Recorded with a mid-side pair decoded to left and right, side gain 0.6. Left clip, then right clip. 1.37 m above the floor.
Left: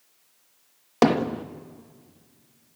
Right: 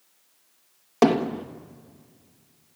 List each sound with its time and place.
1.0 s hammering: 15° left, 1.4 m